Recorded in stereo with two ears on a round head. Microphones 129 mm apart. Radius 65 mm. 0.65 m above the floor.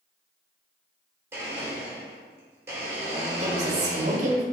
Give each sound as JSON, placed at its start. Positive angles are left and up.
{"t": 1.3, "sound": "a blender", "side_deg": -15, "distance_m": 1.5}
{"t": 3.4, "sound": "a woman speaking", "side_deg": -55, "distance_m": 1.2}